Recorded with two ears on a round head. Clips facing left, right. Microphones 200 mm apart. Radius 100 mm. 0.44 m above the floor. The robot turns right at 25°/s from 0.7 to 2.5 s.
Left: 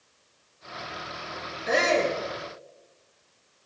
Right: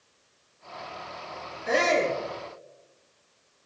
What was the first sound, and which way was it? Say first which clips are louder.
A shout: even; centre (ahead or behind).